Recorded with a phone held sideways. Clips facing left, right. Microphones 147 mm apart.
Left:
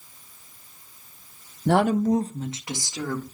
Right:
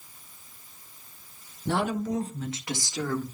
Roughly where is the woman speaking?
Left.